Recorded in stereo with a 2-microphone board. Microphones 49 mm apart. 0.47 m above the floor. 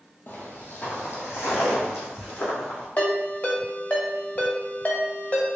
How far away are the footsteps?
About 1.0 m.